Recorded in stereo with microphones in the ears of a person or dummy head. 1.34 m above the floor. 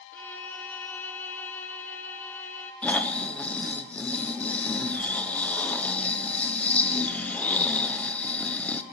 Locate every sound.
0.1 s a violin: 10° left (ahead or behind), 0.6 m
2.8 s snoring: 5° left (ahead or behind), 0.6 m